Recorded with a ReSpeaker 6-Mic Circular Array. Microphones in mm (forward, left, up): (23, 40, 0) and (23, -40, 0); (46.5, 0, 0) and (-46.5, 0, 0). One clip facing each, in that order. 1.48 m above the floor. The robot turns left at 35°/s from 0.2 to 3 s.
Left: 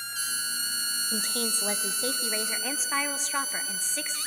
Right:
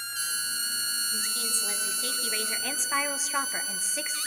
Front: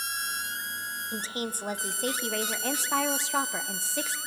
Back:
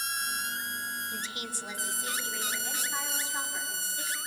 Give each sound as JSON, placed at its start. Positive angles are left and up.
{"t": 1.1, "sound": "a woman speaking", "azimuth_deg": 60, "distance_m": 0.9}